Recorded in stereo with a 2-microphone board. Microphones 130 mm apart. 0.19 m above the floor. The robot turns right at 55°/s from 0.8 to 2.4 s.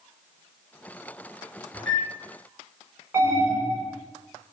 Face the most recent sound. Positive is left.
turn(degrees=-20)  # may be behind; listen again after turning